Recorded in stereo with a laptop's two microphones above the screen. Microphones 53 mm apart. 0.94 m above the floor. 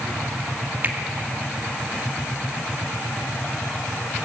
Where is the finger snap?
35° right (ahead or behind), 1.9 m.